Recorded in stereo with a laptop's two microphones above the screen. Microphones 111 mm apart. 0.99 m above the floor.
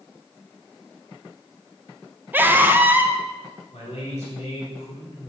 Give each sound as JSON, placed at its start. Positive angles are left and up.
{"t": 2.3, "sound": "a scream", "side_deg": -15, "distance_m": 0.7}
{"t": 3.7, "sound": "a man speaking", "side_deg": 75, "distance_m": 2.5}